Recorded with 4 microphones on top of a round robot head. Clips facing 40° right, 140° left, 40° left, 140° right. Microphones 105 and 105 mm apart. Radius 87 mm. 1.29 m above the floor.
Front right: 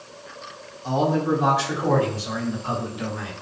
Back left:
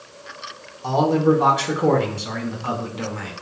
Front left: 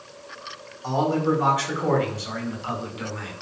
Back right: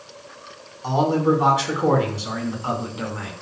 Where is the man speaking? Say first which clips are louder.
Back left 4 dB, back right 3 dB; 145° left, 5.5 m; by 3.3 s 165° left, 6 m.